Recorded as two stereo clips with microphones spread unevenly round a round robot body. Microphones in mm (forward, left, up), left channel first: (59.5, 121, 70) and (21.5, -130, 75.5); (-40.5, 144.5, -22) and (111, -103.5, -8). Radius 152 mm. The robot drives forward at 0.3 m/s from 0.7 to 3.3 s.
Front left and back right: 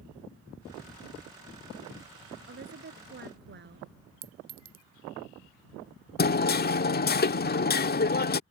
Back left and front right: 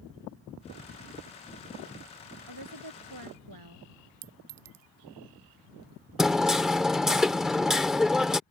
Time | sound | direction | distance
2.5 | a woman speaking | 50° right | ?
4.2 | a clink | 50° right | ?
6.2 | hammering | 30° left | ?